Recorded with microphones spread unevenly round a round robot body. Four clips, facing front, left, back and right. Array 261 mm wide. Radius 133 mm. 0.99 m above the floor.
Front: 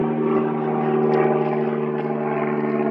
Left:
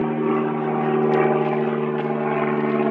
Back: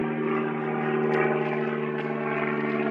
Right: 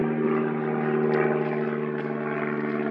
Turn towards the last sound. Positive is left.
turn(degrees=60)